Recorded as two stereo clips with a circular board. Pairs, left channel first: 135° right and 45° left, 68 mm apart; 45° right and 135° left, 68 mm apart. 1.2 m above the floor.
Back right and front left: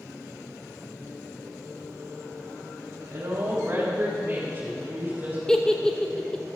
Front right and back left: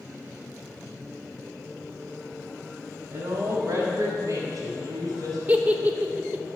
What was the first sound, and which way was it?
A woman speaking, 100° left.